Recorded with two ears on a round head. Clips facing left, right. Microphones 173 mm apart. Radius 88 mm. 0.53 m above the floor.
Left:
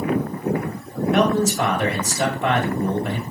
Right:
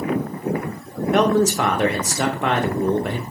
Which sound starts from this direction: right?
A man speaking, at 1.1 s.